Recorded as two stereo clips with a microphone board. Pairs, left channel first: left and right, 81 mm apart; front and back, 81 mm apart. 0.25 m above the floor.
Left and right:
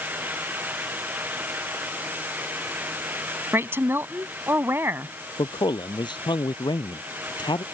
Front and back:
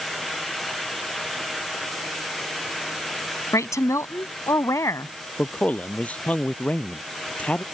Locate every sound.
3.5 s a woman speaking: 40° right
5.4 s a man speaking: 70° left